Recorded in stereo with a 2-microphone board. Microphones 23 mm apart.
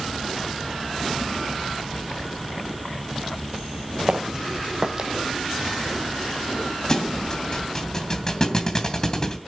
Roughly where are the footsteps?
Right.